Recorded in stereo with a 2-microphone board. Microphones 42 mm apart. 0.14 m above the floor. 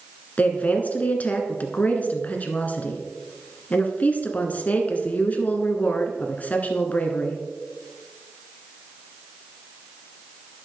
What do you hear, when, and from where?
0.4 s a woman speaking: 40° left (ahead or behind), 1.3 m